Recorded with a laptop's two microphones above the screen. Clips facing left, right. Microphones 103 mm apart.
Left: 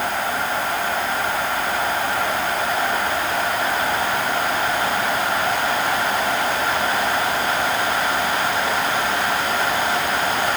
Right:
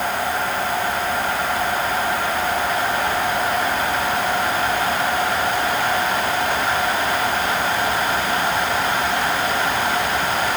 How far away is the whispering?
I don't hear whispering.